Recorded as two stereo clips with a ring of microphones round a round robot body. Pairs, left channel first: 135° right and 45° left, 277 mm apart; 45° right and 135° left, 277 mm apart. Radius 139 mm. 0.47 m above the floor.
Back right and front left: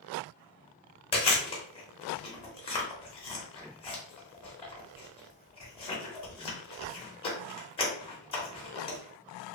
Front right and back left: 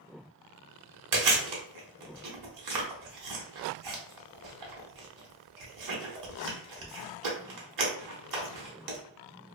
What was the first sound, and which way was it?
Chewing, 155° left.